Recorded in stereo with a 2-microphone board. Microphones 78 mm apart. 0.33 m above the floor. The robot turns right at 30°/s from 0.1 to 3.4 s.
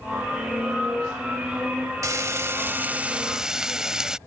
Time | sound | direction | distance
2.0 | frying | 50° right | ?